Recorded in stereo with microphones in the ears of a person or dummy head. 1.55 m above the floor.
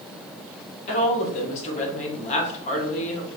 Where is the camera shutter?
No camera shutter in this recording.